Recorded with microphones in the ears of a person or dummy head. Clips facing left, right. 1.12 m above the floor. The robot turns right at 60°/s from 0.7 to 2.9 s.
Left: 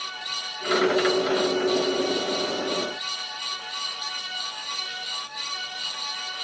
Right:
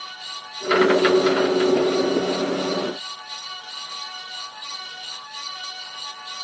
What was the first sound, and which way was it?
Only background noise.